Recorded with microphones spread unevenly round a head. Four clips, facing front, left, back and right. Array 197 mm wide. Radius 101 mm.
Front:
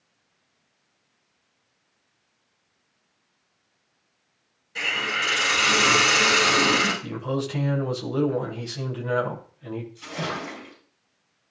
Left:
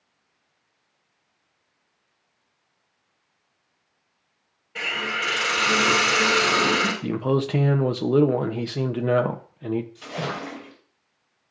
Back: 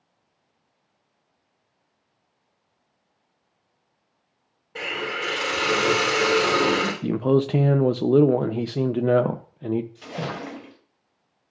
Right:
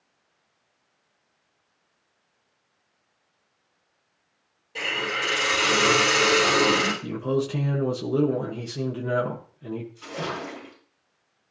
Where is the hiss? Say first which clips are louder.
Even, even; 160° right, 4 m.